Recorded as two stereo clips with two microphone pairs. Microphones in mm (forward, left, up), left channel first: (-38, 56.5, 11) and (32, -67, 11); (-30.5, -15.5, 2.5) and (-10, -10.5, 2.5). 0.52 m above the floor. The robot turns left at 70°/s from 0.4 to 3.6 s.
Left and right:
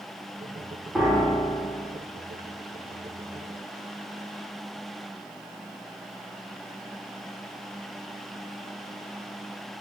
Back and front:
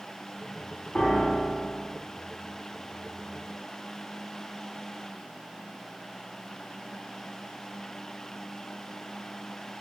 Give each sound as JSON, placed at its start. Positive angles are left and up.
{"t": 0.9, "sound": "a piano", "azimuth_deg": -140, "distance_m": 1.6}